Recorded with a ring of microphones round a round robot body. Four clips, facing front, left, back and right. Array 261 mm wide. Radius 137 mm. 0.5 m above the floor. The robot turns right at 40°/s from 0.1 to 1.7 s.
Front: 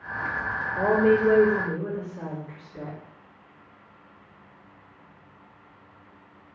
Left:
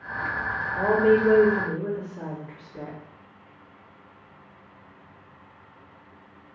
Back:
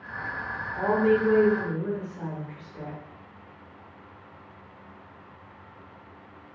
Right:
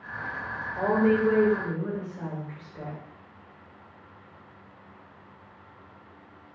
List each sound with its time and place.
0.8 s a woman speaking: 30° left, 2.0 m; by 3.0 s 65° left, 2.0 m